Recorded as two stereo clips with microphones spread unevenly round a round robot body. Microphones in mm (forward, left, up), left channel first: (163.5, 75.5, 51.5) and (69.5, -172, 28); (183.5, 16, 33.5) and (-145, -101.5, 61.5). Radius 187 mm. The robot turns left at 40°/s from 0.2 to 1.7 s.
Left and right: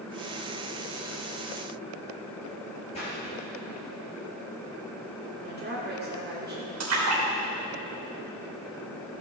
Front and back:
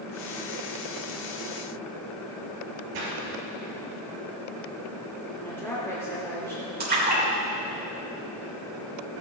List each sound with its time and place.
2.9 s a splash: 145° left, 3.5 m
5.3 s a woman speaking: 65° right, 2.5 m
6.8 s a splash: 95° right, 3 m